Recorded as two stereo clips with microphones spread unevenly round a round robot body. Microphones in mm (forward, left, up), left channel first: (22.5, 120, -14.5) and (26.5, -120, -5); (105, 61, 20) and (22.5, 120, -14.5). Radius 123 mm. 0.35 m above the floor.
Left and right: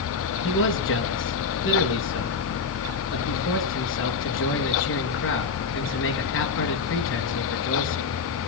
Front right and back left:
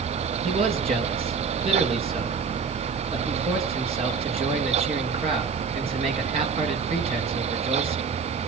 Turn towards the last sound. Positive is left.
turn(degrees=130)